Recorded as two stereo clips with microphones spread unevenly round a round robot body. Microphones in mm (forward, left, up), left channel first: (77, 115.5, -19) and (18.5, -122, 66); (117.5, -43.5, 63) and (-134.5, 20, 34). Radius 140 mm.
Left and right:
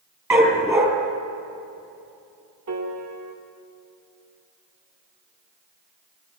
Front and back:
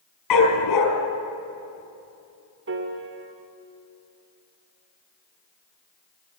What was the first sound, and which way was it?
A dog barking, 30° right.